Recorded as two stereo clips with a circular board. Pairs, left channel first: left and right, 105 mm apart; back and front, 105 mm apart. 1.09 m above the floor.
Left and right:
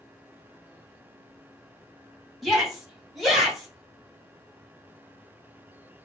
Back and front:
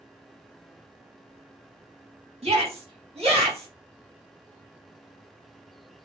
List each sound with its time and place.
2.4 s a shout: straight ahead, 2 m